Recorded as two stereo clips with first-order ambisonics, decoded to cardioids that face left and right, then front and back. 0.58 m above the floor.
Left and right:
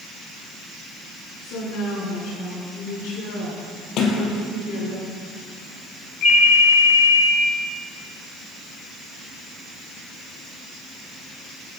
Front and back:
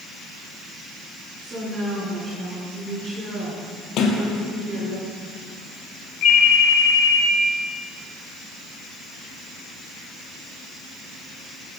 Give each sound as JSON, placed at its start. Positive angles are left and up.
{"t": 1.4, "sound": "a woman speaking", "azimuth_deg": 115, "distance_m": 6.0}
{"t": 4.0, "sound": "a sliding door", "azimuth_deg": 45, "distance_m": 2.5}
{"t": 6.2, "sound": "a ringtone", "azimuth_deg": 40, "distance_m": 3.0}